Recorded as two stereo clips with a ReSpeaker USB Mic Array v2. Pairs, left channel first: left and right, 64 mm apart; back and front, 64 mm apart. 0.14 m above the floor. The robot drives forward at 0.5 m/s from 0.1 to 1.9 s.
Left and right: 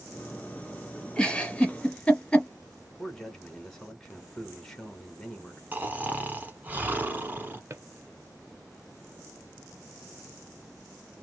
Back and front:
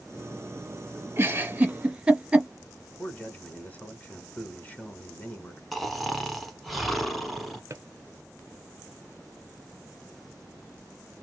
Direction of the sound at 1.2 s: 20° left.